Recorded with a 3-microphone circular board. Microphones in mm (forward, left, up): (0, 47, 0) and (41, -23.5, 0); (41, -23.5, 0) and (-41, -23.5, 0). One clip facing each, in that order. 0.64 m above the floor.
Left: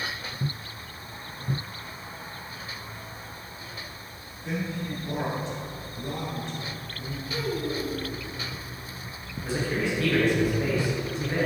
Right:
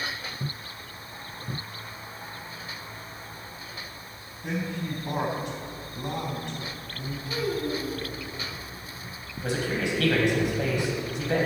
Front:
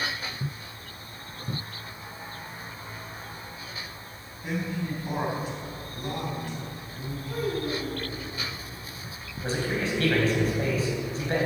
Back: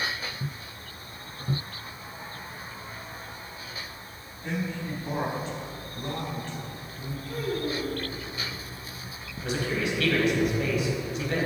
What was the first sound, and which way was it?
A man speaking, 80° right.